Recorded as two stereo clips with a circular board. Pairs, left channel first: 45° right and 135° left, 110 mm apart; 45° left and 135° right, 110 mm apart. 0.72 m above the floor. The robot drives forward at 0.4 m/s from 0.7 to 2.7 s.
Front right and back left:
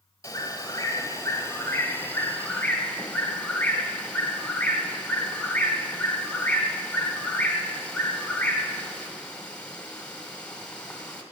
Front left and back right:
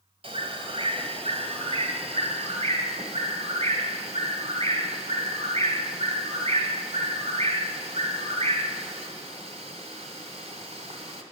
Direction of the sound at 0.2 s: 105° right.